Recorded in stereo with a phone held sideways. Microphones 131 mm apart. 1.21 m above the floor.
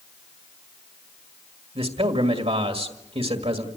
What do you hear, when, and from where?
1.8 s a man speaking: 50° right (ahead or behind), 1.9 m